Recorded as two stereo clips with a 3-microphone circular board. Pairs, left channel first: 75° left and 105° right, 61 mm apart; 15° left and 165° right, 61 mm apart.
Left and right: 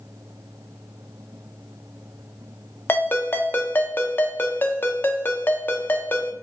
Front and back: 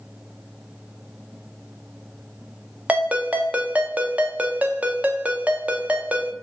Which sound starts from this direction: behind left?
A ringtone, at 2.9 s.